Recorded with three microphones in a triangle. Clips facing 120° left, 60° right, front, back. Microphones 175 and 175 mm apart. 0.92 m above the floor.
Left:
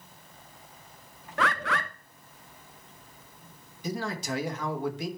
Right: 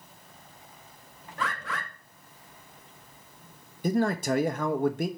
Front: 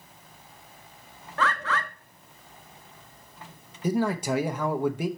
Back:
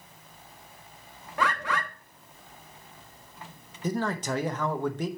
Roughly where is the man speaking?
Right.